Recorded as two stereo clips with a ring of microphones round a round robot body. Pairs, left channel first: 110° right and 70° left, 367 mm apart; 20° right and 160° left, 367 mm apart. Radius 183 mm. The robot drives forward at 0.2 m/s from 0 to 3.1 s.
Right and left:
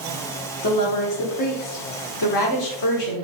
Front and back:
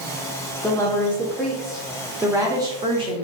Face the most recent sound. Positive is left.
turn(degrees=-130)